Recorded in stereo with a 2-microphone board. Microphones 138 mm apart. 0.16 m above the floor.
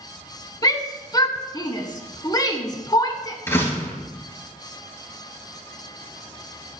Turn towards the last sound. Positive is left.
turn(degrees=20)  # may be behind; listen again after turning